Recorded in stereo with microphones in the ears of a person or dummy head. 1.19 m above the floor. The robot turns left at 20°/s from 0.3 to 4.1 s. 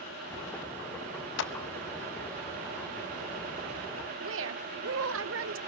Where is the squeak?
No squeak in this recording.